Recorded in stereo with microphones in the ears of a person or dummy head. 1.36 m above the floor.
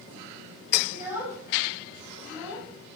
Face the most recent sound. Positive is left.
turn(degrees=-10)  # may be behind; listen again after turning